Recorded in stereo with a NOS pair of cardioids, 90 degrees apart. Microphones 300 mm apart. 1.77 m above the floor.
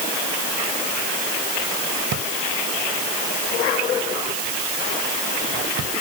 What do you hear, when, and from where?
2.1 s a drawer: 65° right